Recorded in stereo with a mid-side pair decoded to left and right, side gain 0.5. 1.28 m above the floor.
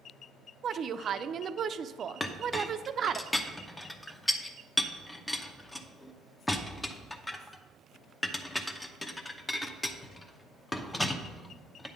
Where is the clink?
15° left, 0.8 m.